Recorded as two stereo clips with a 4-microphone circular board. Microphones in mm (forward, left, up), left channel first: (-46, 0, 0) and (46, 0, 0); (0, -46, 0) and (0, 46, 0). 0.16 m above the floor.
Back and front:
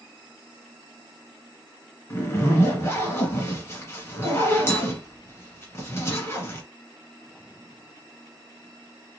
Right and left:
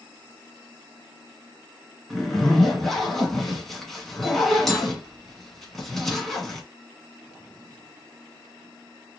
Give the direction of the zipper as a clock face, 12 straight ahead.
6 o'clock.